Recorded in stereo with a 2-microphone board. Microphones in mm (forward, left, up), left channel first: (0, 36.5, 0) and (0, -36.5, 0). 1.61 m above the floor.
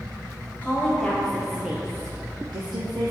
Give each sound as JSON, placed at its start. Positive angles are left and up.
{"t": 0.6, "sound": "a woman speaking", "side_deg": 25, "distance_m": 1.2}